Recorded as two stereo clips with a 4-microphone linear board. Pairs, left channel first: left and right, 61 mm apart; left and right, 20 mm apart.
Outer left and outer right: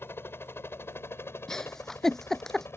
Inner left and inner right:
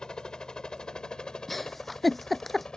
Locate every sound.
0.0 s a helicopter: 40° left (ahead or behind); by 2.8 s 45° left (ahead or behind)
1.5 s a giggle: 10° left (ahead or behind)